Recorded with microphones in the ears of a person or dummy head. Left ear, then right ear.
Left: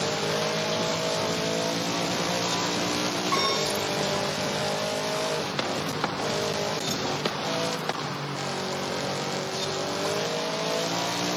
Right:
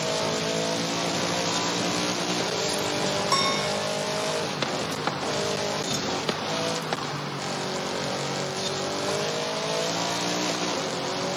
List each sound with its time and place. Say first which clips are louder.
3.3 s a piano: even; 75° right (ahead or behind), 4.5 m